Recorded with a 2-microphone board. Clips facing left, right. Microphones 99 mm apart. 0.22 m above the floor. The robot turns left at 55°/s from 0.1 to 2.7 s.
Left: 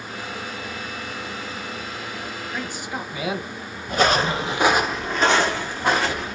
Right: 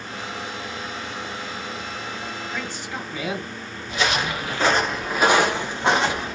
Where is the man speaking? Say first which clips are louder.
Left 1 dB; 10° left (ahead or behind), 0.9 m; by 3.5 s 15° left (ahead or behind), 0.9 m.